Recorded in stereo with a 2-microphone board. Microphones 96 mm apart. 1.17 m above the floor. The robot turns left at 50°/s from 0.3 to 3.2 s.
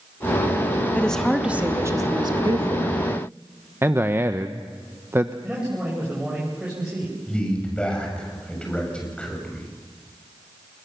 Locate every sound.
0.9 s a woman speaking: 15° left, 2 m; by 3.0 s 90° right, 2 m
3.8 s a man speaking: 25° right (ahead or behind), 0.8 m
5.4 s a man speaking: 10° right (ahead or behind), 6 m
7.3 s a man speaking: 10° left (ahead or behind), 7 m